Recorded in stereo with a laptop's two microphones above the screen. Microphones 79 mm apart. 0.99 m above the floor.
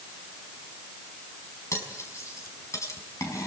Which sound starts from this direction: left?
Cutlery clinking, at 1.7 s.